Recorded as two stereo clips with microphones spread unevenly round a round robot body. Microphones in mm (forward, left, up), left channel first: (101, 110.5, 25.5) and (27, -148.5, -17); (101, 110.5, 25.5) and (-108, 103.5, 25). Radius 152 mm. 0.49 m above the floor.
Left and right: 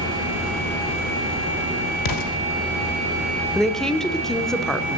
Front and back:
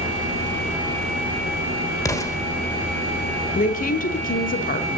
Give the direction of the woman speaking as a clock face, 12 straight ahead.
1 o'clock.